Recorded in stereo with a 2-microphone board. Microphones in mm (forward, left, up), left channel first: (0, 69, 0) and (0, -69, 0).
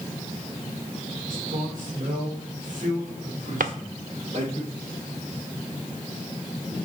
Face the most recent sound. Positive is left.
turn(degrees=-85)